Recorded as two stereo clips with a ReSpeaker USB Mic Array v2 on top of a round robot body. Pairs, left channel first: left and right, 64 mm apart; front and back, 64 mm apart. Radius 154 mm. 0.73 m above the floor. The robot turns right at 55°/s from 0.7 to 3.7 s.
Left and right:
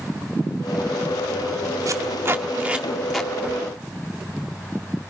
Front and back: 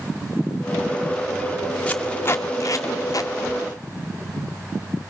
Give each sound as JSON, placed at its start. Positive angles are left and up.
{"t": 1.9, "sound": "tape being pulled", "azimuth_deg": -70, "distance_m": 1.8}